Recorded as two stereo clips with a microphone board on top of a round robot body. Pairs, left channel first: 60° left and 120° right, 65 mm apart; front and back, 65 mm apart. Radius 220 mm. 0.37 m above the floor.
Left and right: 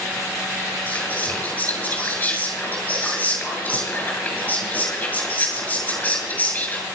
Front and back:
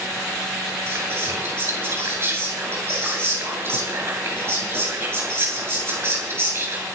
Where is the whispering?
125° left, 9.5 m.